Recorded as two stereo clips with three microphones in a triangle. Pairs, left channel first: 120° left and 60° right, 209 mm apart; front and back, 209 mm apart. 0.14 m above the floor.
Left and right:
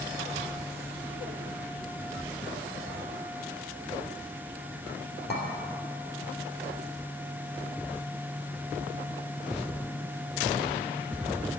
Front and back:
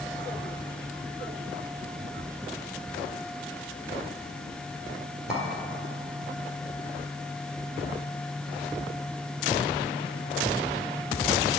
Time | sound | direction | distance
5.3 | a clink | 95° left | 2 m